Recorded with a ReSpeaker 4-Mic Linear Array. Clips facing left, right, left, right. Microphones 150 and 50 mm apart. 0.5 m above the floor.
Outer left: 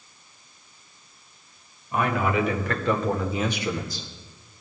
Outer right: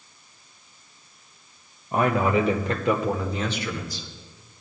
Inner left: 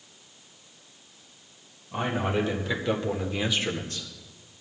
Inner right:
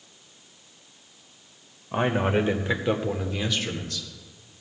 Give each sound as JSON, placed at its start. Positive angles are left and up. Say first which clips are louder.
{"t": 1.9, "sound": "a man speaking", "louder": "outer right 3 dB, inner right 4 dB", "side_deg": -50, "distance_m": 2.0}